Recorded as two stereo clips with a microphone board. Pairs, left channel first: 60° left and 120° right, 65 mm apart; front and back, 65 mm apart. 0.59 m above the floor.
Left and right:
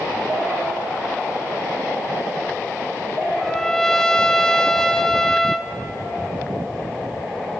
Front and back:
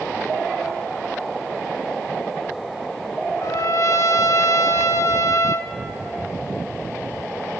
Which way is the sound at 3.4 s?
20° right.